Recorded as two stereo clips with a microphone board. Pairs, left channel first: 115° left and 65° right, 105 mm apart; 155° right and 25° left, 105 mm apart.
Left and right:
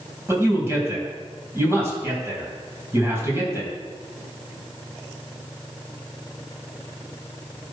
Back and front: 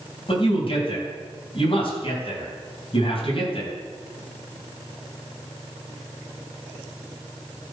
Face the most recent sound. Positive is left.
turn(degrees=-130)